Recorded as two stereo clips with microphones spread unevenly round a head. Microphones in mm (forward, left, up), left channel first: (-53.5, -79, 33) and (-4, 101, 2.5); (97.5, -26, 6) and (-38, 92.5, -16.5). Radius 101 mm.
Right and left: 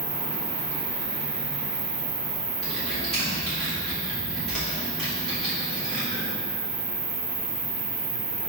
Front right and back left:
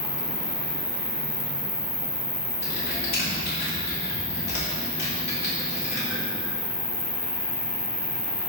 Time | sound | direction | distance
0.0 | an insect | 5° left | 3 m
2.6 | typing on a keyboard | 20° right | 3.5 m